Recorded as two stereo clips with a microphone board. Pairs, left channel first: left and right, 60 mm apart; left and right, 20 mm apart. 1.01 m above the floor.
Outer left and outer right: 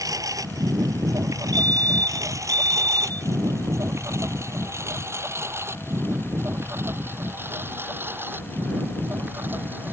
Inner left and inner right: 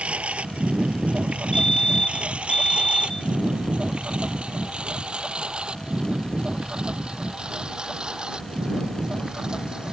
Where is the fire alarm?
30° left (ahead or behind).